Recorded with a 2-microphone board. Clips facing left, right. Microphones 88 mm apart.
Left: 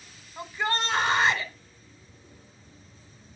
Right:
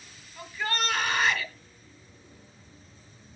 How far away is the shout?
About 1.7 m.